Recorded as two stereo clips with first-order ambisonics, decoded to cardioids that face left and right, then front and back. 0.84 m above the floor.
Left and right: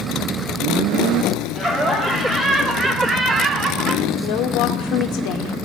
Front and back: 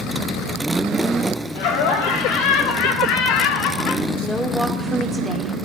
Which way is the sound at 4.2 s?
85° left.